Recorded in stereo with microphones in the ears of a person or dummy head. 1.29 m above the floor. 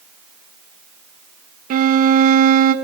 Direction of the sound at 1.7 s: 50° right (ahead or behind).